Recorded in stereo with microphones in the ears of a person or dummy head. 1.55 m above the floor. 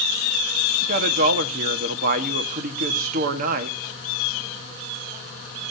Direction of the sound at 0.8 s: 50° right (ahead or behind).